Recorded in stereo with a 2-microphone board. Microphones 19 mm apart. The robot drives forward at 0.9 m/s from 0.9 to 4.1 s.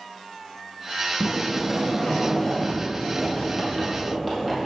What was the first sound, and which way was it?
A sliding door, centre (ahead or behind).